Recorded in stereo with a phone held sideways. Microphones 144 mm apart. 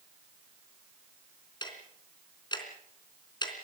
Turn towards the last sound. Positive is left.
turn(degrees=30)  # may be behind; listen again after turning